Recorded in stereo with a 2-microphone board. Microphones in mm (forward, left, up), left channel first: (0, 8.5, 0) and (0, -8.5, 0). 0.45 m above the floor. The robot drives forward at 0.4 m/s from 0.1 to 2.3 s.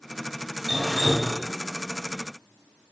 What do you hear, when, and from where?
0.7 s dripping: 20° right (ahead or behind), 1.2 m; by 1.3 s 25° right (ahead or behind), 1.0 m